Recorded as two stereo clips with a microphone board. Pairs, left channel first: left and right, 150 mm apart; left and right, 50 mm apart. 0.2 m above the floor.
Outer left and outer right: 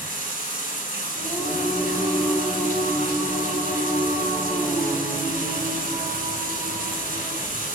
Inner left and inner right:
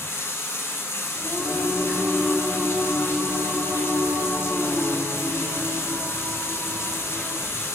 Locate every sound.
0.0 s running water: 60° left (ahead or behind), 0.7 m
1.1 s singing: 40° left (ahead or behind), 1.2 m